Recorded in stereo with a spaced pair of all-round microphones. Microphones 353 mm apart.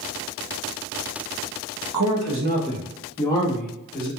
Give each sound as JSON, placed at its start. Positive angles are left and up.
{"t": 1.9, "sound": "a man speaking", "side_deg": -60, "distance_m": 0.6}